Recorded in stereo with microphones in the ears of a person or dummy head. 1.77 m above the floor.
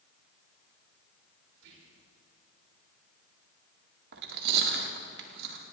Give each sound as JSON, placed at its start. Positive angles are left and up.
{"t": 1.5, "sound": "whispering", "side_deg": -75, "distance_m": 4.0}
{"t": 4.1, "sound": "chewing", "side_deg": -55, "distance_m": 2.0}